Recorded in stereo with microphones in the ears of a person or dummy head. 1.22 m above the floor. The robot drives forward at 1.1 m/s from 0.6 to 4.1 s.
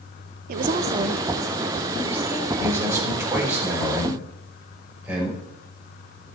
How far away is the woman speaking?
About 0.6 m.